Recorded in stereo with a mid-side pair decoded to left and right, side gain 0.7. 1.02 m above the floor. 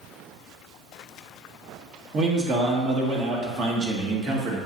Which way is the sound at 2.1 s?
35° right.